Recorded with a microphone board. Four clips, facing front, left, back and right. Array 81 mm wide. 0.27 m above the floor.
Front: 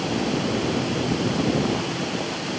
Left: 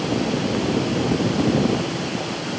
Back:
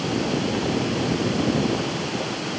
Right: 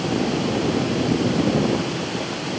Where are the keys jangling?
I don't hear keys jangling.